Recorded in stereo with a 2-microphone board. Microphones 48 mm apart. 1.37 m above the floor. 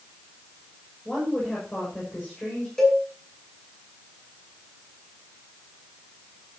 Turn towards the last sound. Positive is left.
turn(degrees=10)  # may be behind; listen again after turning